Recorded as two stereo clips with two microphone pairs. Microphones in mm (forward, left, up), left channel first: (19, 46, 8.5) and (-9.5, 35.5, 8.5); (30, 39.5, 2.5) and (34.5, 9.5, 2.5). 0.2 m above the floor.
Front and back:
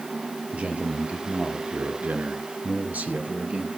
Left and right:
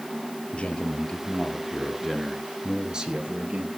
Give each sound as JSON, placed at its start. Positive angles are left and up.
{"t": 0.5, "sound": "a man speaking", "azimuth_deg": 150, "distance_m": 3.5}